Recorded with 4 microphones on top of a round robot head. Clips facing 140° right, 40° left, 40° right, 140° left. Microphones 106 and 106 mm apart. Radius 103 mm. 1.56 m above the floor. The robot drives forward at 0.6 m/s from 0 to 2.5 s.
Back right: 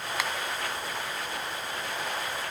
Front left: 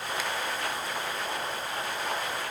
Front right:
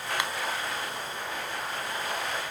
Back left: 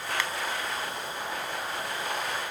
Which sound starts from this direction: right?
A finger snap, at 0.2 s.